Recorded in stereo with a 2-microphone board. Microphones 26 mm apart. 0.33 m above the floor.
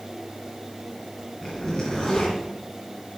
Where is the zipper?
30° left (ahead or behind), 3 m.